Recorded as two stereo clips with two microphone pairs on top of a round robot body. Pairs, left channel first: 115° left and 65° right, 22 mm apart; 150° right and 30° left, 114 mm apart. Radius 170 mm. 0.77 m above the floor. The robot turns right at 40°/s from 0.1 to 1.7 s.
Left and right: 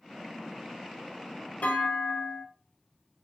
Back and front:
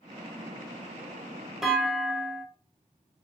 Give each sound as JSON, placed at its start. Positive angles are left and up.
{"t": 1.6, "sound": "a clunk", "azimuth_deg": 115, "distance_m": 0.9}